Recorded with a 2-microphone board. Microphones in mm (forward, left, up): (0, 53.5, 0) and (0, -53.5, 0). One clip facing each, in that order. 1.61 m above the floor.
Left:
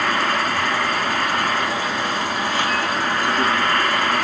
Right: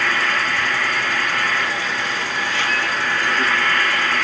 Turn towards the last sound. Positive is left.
turn(degrees=45)  # may be behind; listen again after turning